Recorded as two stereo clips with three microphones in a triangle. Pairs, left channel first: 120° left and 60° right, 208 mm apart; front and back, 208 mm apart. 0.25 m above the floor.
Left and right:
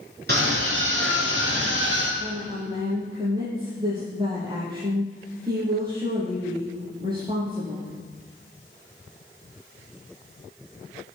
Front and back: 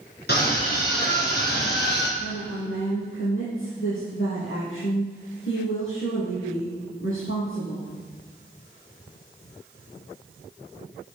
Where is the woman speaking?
5° left, 6.5 m.